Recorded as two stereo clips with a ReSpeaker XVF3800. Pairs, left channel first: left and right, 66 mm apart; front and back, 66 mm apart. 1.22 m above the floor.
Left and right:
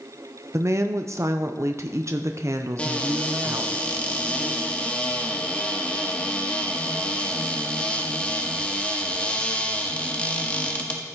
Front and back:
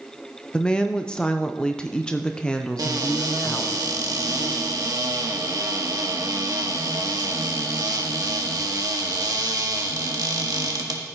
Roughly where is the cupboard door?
Behind.